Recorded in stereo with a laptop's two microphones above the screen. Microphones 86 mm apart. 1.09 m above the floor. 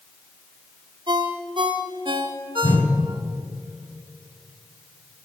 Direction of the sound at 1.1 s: 75° right (ahead or behind).